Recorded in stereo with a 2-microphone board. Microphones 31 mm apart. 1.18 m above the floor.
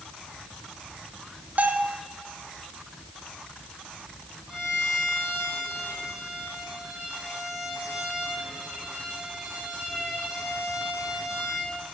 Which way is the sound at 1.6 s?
60° right (ahead or behind).